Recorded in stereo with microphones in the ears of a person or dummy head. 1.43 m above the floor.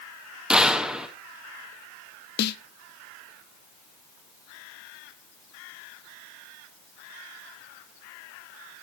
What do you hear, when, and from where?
0.5 s a gunshot: centre (ahead or behind), 1.5 m
2.4 s a snare drum: 55° left (ahead or behind), 0.9 m